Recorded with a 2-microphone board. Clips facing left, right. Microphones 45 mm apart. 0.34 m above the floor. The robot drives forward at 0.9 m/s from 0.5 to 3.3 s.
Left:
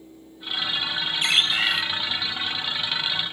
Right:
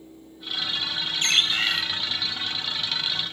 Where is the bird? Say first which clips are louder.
Left 1 dB; 10° left (ahead or behind), 1.4 m; by 1.8 s 5° left (ahead or behind), 1.8 m.